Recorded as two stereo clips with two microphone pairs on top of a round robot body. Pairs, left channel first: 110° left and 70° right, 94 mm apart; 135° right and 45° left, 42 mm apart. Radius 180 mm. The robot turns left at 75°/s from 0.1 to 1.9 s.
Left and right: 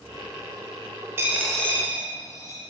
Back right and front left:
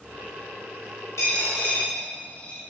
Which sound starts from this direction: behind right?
A dropped coin, at 1.2 s.